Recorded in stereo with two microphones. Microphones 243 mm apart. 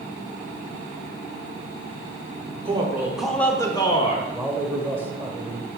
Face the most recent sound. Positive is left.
turn(degrees=-10)  # may be behind; listen again after turning